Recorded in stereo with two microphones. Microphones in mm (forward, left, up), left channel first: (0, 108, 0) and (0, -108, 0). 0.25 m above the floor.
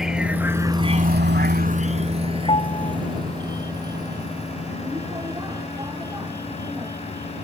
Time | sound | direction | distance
0.0 | a vehicle | centre (ahead or behind) | ?
2.5 | a piano | 30° left (ahead or behind) | ?